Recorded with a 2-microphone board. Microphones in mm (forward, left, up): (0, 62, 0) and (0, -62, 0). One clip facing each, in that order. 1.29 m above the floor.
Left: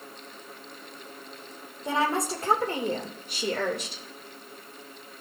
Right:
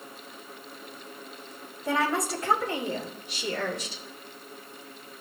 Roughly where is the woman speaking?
Left.